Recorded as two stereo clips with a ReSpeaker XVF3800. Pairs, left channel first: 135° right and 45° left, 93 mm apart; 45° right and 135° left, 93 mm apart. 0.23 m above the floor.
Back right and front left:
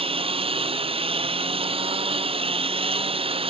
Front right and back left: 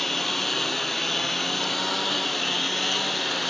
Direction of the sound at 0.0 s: 45° left.